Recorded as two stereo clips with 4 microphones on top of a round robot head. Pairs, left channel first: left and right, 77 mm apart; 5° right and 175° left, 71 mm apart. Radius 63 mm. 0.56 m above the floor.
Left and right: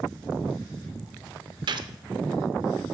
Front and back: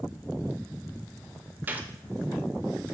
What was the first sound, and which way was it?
A gunshot, 115° right.